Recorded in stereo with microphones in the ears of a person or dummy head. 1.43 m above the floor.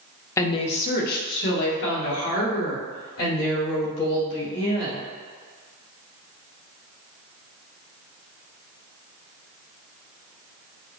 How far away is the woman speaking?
About 0.5 m.